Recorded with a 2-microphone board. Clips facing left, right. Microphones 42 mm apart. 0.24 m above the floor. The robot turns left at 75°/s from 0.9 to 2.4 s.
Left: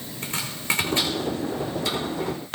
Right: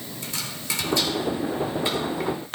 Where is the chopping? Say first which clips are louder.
Left 6 dB; 40° left (ahead or behind), 4.5 m; by 2.3 s 60° right (ahead or behind), 4.5 m.